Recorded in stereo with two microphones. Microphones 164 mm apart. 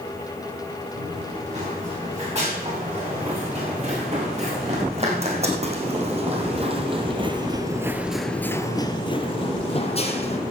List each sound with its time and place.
0.9 s running footsteps: 40° right (ahead or behind), 7.5 m; by 10.4 s 40° left (ahead or behind), 2.5 m